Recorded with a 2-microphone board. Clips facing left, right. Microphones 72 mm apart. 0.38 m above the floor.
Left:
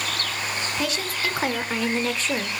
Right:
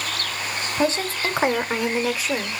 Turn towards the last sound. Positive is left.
turn(degrees=0)  # may be behind; listen again after turning